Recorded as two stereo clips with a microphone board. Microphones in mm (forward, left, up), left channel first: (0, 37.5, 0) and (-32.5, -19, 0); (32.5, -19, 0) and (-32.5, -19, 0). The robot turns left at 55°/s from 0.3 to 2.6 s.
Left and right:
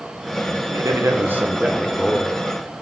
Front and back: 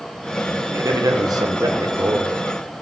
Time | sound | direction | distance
0.7 | a man speaking | 145° right | 1.3 m